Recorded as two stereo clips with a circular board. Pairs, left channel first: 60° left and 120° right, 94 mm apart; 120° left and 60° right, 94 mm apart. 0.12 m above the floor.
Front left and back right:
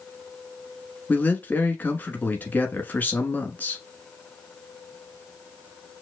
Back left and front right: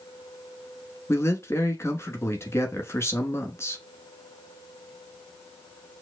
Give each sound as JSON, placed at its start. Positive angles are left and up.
{"t": 1.1, "sound": "a man speaking", "azimuth_deg": 110, "distance_m": 1.1}